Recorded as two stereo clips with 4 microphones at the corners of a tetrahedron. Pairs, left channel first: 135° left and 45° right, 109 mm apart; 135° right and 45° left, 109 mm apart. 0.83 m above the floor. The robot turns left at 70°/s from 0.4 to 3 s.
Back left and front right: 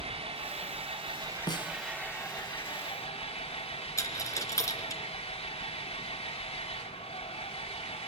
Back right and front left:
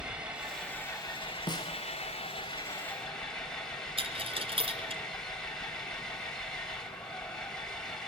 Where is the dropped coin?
75° left, 2.5 m.